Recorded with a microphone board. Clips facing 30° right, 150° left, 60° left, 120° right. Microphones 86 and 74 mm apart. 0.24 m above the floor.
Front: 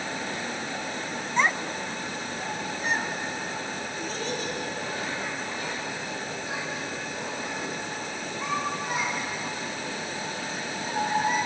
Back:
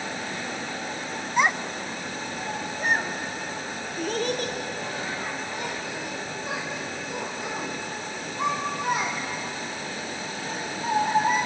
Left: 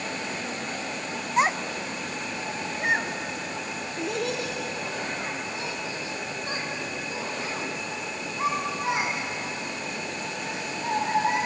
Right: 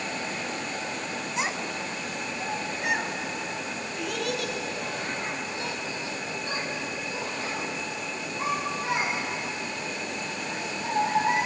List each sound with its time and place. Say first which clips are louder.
1.4 s a child speaking: back 2 dB, left 8 dB; 75° left, 0.9 m; by 11.4 s 130° left, 11 m